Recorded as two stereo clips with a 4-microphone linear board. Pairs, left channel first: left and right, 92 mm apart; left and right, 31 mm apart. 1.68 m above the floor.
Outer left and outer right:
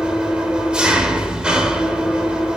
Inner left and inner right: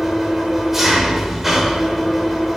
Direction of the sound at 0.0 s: 10° right (ahead or behind).